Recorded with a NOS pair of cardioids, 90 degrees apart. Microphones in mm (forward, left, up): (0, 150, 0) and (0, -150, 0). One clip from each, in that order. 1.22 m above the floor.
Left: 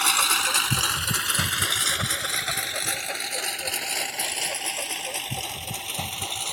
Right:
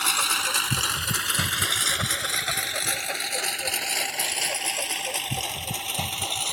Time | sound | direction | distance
0.0 | a lawn mower | 25° left | ?